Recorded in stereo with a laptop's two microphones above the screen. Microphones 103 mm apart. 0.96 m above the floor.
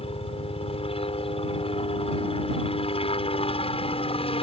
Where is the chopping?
No chopping in this recording.